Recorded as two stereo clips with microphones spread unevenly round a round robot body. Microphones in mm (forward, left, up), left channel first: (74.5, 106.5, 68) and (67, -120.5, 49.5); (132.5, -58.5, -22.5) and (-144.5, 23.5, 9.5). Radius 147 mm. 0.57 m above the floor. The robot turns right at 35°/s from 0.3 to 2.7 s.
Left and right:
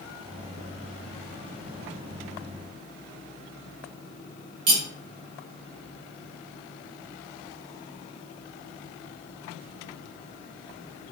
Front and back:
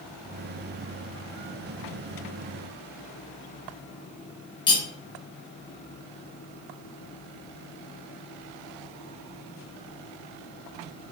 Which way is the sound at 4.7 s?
90° right.